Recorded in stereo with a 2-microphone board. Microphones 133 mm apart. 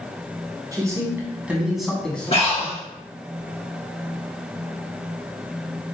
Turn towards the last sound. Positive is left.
turn(degrees=50)  # may be behind; listen again after turning